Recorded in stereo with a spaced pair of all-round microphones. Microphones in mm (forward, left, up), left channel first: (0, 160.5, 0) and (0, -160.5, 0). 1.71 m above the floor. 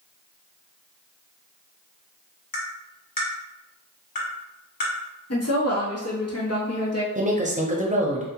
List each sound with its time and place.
2.5 s tapping: 85° left, 0.9 m
5.3 s a woman speaking: 45° left (ahead or behind), 0.8 m
7.2 s a woman speaking: 20° right (ahead or behind), 0.6 m